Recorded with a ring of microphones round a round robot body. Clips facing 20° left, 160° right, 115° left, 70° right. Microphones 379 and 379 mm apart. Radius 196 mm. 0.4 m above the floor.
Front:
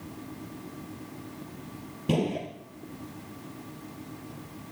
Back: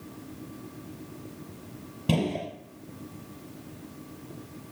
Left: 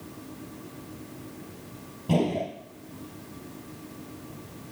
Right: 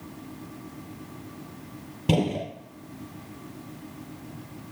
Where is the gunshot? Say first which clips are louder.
Even, even; 80° right, 4 m.